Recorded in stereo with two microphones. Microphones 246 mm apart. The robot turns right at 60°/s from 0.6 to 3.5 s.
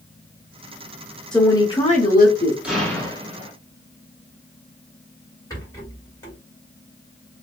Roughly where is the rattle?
Centre.